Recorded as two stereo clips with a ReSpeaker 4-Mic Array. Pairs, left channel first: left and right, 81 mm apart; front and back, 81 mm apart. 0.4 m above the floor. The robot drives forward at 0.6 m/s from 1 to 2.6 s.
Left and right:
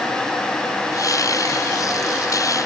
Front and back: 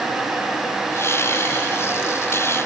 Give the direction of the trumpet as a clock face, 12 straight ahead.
No trumpet in this recording.